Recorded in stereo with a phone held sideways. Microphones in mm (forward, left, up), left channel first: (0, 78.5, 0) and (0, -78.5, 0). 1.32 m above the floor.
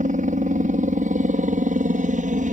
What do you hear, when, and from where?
0.0 s a helicopter: 55° right (ahead or behind)